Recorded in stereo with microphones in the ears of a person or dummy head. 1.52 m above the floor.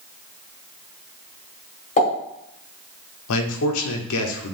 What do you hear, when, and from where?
2.0 s a pop: 35° left (ahead or behind), 1.8 m
3.3 s a man speaking: 80° left, 0.7 m